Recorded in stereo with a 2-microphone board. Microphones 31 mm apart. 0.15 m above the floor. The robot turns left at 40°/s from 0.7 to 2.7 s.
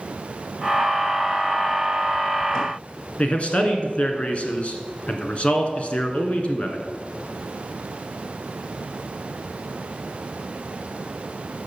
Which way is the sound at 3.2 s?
40° left (ahead or behind).